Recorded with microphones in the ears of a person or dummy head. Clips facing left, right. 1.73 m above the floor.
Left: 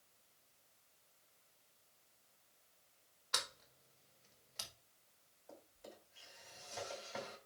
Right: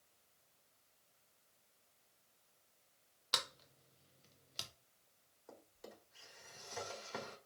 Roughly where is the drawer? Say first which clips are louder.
Even; right.